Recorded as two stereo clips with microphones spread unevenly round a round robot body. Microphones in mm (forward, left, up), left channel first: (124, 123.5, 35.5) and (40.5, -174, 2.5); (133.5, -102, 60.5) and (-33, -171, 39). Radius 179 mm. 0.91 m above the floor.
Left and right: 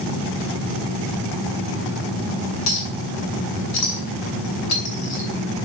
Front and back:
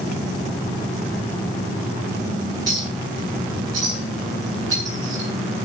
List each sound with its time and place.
2.7 s a clink: 125° left, 5 m